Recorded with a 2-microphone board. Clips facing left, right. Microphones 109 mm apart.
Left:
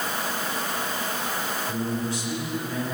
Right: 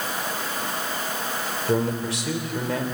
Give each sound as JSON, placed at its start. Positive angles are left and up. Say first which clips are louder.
{"t": 1.7, "sound": "a man speaking", "louder": "right 7 dB", "side_deg": -85, "distance_m": 3.0}